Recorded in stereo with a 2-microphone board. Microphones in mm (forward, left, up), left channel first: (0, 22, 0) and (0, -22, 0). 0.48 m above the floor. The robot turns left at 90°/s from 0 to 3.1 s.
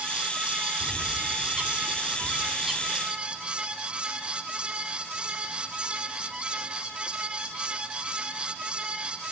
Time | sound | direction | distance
0.8 | a bird | centre (ahead or behind) | 1.0 m